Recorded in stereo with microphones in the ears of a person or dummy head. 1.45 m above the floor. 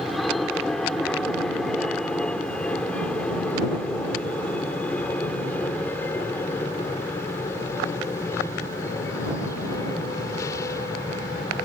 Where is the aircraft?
Centre (ahead or behind); by 11.7 s 20° left (ahead or behind).